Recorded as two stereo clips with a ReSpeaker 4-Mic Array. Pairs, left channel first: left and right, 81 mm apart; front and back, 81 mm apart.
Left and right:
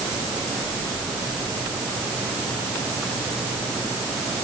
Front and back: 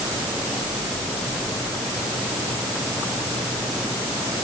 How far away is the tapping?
No tapping in this recording.